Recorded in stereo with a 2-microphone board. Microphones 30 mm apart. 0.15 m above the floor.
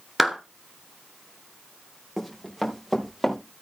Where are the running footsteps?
5° right (ahead or behind), 4 m; by 3.4 s centre (ahead or behind), 5 m.